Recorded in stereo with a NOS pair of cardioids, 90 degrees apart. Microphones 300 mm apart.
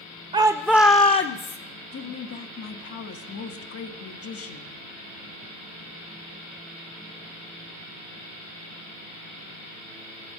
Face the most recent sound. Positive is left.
turn(degrees=50)